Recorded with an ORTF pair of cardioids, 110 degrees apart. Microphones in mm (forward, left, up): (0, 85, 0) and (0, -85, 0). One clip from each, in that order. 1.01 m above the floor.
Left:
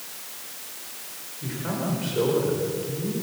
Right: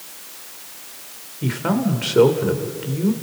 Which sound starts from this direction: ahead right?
A man speaking, at 1.4 s.